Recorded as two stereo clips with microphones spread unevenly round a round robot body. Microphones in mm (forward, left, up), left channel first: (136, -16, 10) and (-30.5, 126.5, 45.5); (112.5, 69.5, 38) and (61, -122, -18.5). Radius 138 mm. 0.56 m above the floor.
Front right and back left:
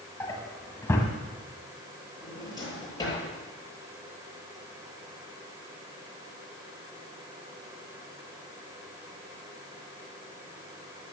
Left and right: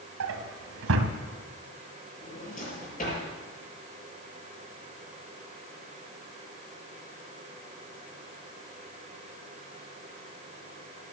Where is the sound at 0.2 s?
125° right, 1.2 m.